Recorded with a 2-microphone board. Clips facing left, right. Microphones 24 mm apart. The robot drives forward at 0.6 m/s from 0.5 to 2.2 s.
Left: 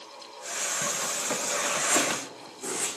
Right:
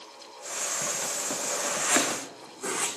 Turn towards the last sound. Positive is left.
turn(degrees=-70)  # may be behind; listen again after turning